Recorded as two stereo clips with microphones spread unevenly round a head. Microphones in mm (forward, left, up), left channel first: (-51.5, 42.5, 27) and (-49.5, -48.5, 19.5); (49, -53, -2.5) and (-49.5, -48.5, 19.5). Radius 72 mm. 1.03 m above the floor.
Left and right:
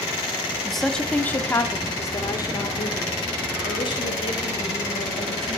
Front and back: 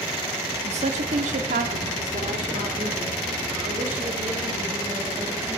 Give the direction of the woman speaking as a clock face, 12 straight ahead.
6 o'clock.